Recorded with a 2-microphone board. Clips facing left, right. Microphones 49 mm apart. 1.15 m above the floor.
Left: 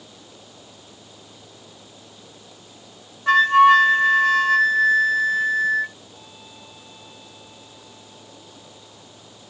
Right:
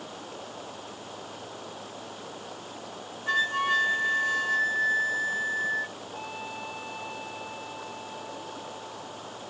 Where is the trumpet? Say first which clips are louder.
Right 8 dB; 65° right (ahead or behind).